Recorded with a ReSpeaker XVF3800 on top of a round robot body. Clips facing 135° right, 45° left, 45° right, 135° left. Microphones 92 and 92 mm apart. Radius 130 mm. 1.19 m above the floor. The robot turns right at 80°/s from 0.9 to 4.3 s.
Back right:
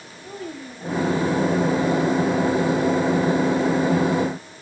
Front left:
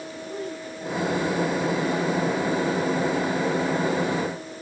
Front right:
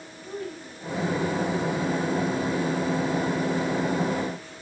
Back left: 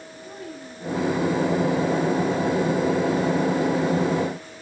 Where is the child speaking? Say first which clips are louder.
Back right 1 dB, front right 3 dB; 140° right, 5.5 m; by 1.2 s 115° right, 5.5 m.